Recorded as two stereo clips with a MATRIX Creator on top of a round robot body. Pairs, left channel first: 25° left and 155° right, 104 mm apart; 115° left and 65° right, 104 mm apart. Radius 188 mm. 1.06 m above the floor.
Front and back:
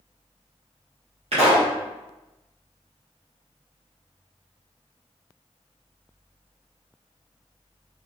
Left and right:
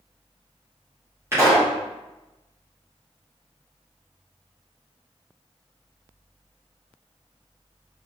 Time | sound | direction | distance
1.3 | a pop | 135° right | 2 m